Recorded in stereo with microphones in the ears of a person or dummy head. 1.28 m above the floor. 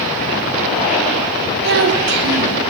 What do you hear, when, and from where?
1.6 s a child speaking: 60° right (ahead or behind), 0.7 m